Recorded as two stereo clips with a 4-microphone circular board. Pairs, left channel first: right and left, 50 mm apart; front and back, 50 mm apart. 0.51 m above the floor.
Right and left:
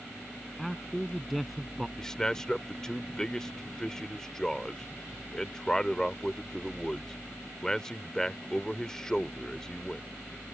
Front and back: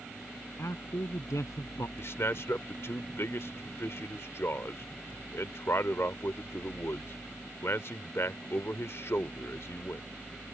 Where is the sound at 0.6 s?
Straight ahead.